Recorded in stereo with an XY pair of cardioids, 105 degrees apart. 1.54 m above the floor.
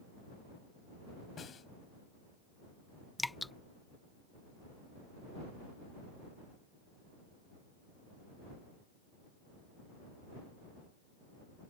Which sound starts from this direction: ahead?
Dripping, at 3.2 s.